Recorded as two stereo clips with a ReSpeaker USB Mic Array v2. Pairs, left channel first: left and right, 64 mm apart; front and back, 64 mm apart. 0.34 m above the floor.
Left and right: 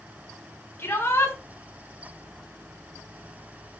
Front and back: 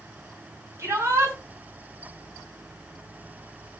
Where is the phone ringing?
No phone ringing in this recording.